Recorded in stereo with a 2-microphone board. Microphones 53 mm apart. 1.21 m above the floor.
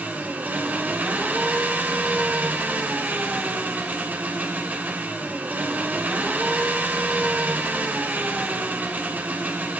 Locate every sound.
0.0 s an engine running: 35° right (ahead or behind), 3.5 m